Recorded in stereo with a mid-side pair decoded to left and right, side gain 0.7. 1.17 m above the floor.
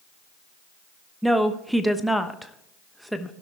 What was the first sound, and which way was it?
A woman speaking, straight ahead.